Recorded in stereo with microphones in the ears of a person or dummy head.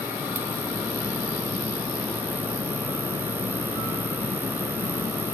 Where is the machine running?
10° right (ahead or behind).